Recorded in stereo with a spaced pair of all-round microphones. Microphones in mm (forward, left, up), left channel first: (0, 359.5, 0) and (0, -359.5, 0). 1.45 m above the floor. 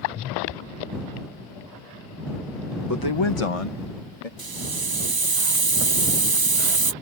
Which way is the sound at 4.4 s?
35° right (ahead or behind).